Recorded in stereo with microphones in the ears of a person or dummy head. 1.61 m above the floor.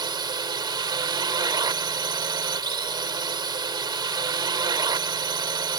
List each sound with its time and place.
0.0 s a drone: 25° right (ahead or behind)